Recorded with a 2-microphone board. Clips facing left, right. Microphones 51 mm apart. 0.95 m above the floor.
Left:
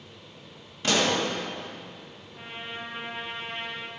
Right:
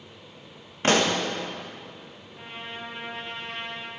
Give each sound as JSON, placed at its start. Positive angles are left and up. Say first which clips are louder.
{"t": 0.8, "sound": "a pop", "louder": "right 2 dB", "side_deg": -40, "distance_m": 1.0}
{"t": 2.3, "sound": "a trumpet", "louder": "even", "side_deg": 10, "distance_m": 1.1}